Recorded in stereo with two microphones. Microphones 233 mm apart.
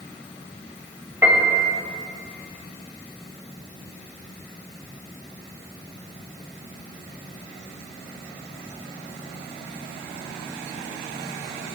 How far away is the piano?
About 2.5 m.